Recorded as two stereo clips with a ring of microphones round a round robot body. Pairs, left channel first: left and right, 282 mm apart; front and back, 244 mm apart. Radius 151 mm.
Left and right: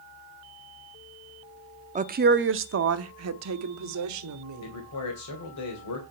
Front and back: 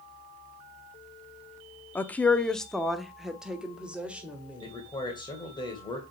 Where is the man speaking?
70° left, 2.5 m.